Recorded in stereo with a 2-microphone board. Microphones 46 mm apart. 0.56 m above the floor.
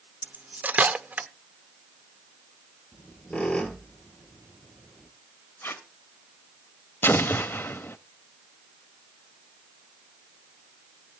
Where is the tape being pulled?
55° left (ahead or behind), 1.4 m.